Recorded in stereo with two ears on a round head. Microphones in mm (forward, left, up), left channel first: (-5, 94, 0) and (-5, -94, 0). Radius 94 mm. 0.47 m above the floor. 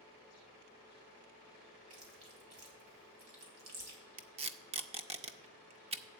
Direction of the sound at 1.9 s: 75° right (ahead or behind).